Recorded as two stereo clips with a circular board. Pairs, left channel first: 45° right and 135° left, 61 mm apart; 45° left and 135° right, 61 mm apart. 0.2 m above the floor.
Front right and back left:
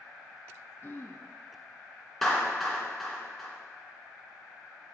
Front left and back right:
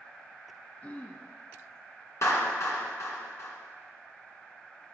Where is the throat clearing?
10° right, 0.8 m.